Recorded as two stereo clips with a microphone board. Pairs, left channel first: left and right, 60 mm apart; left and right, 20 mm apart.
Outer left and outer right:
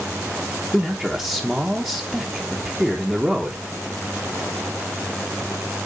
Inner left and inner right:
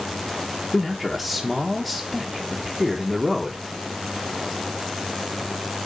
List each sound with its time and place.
0.7 s a man speaking: 15° right (ahead or behind), 1.4 m